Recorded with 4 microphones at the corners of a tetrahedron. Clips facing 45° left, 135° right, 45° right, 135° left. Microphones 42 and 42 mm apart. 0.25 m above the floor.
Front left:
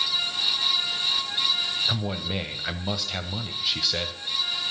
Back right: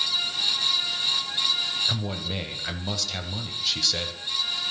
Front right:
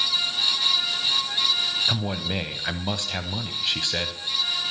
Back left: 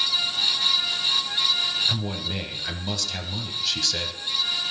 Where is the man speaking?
20° right, 1.1 m.